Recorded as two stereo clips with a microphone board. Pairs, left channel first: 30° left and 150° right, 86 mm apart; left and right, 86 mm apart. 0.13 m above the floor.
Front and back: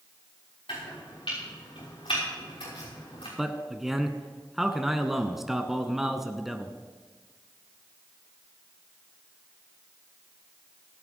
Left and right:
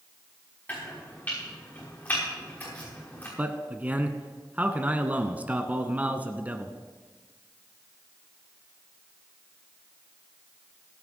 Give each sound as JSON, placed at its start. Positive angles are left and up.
{"t": 0.7, "sound": "chopping", "azimuth_deg": 20, "distance_m": 6.0}
{"t": 3.4, "sound": "a man speaking", "azimuth_deg": -70, "distance_m": 1.1}